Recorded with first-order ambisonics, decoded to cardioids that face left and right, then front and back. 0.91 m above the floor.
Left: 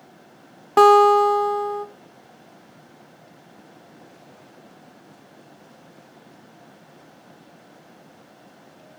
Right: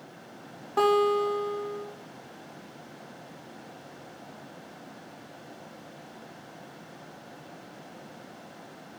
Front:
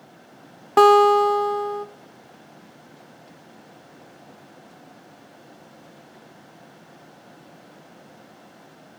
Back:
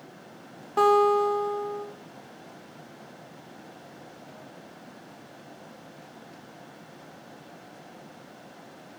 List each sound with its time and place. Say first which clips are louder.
0.8 s a guitar: left 11 dB, front 7 dB; 45° left, 0.9 m